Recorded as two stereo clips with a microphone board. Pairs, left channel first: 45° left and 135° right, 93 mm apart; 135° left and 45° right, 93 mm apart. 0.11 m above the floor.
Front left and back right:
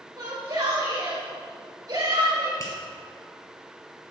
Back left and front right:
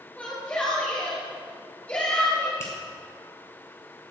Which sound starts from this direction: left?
A finger snap, at 2.6 s.